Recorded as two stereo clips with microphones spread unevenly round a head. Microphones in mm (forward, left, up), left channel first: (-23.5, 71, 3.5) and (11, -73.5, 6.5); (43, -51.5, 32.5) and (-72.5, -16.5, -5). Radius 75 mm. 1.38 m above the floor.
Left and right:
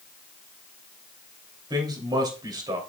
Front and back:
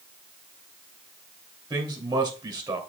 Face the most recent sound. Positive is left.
turn(degrees=-140)